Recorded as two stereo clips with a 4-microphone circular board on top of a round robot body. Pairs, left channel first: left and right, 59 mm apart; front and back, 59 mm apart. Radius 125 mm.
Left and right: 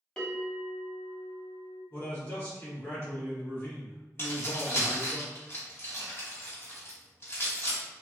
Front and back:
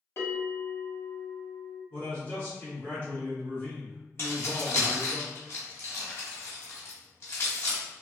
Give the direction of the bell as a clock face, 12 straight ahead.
12 o'clock.